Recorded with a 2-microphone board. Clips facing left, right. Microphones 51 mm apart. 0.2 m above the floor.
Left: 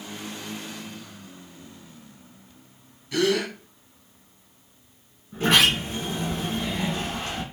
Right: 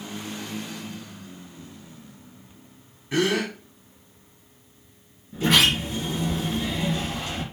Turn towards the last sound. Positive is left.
turn(degrees=40)  # may be behind; listen again after turning